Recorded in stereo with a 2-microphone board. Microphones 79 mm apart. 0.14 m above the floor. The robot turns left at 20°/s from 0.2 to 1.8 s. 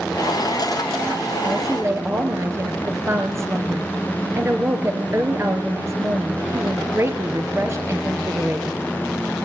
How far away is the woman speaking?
About 2.5 m.